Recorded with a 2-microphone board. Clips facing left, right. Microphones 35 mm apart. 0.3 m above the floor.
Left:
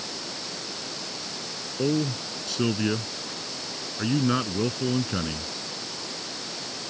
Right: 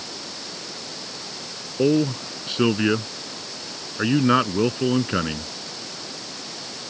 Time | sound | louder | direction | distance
1.8 | a man speaking | right 6 dB | 35° right (ahead or behind) | ?